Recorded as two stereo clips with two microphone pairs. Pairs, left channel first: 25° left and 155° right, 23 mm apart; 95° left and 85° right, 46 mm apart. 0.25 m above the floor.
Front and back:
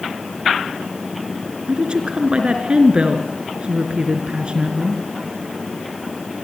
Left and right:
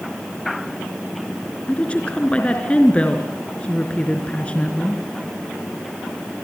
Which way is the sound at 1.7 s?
160° left.